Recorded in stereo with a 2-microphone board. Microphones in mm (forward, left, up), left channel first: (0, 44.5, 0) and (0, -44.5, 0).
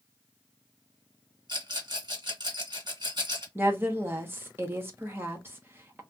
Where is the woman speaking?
25° right (ahead or behind), 1.0 m.